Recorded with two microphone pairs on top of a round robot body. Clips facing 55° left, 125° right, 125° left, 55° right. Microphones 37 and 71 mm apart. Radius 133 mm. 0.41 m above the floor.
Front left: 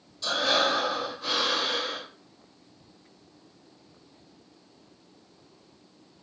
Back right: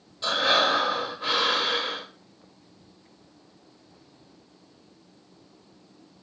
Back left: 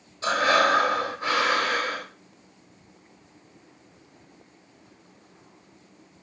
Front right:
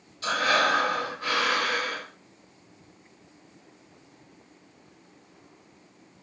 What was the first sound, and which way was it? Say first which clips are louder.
Breathing: back right 3 dB, back left 3 dB; 170° right.